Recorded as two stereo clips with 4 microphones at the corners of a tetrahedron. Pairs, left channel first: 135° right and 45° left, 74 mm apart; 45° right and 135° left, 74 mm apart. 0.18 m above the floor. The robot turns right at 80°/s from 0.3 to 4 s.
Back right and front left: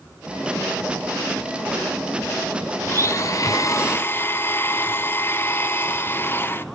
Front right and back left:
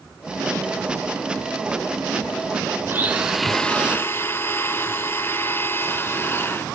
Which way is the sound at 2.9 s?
Straight behind.